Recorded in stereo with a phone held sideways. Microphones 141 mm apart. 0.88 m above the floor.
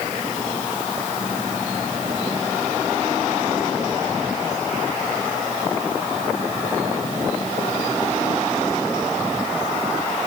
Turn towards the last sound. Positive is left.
No sound to turn to.